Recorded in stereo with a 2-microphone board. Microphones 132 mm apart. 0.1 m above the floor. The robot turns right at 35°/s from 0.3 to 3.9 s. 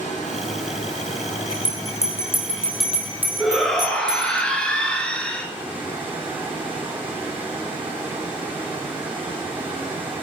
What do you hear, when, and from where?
0.0 s running water: 70° left, 5 m; by 10.2 s 165° right, 5 m
1.5 s a bell: 40° left (ahead or behind), 2 m; by 4.4 s 35° right (ahead or behind), 2 m
3.4 s a shout: centre (ahead or behind), 2.0 m; by 5.5 s 10° left (ahead or behind), 2.0 m